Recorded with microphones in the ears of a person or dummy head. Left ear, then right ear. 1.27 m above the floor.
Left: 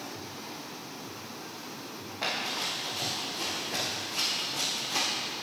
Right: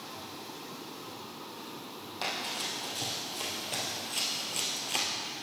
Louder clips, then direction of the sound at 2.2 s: Left 3 dB; 55° right (ahead or behind).